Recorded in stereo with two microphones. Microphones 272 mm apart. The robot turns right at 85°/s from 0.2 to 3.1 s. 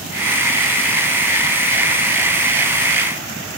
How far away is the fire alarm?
No fire alarm in this recording.